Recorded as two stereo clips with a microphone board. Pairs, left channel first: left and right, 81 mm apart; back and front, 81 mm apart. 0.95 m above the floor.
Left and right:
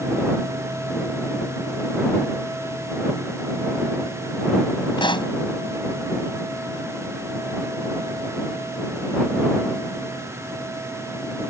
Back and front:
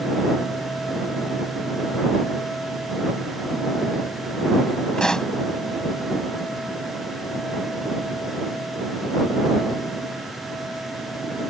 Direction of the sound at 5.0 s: 100° left.